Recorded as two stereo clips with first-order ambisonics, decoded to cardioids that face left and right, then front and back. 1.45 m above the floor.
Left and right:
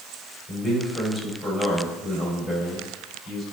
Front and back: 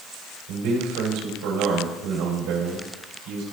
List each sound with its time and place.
0.5 s a man speaking: straight behind, 3 m